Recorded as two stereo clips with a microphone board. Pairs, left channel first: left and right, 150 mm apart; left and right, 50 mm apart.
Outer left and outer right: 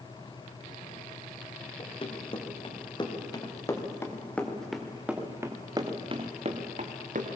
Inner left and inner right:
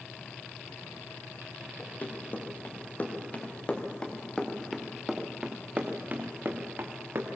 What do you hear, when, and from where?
1.8 s running footsteps: 40° left (ahead or behind), 4 m; by 7.4 s 60° right (ahead or behind), 2.5 m